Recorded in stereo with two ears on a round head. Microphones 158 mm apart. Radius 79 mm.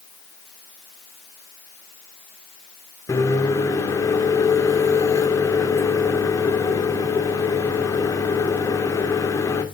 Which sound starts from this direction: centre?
A microwave, at 3.1 s.